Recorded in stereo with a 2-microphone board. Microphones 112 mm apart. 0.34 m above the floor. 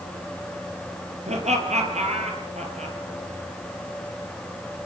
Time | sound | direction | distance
1.3 | laughter | 85° right | 6.5 m